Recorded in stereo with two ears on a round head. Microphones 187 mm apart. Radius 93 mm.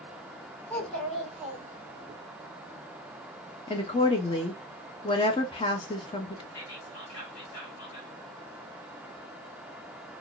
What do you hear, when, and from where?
0.7 s a child speaking: 10° left (ahead or behind), 1.4 m; by 2.1 s 25° right (ahead or behind), 0.9 m
3.7 s a woman speaking: 25° left (ahead or behind), 0.7 m
6.5 s whispering: 60° left (ahead or behind), 2 m